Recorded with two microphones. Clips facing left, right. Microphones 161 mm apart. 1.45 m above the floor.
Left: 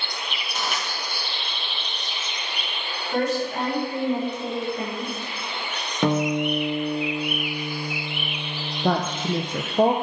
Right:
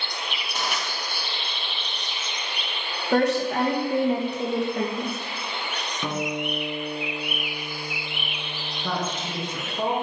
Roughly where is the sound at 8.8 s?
Left.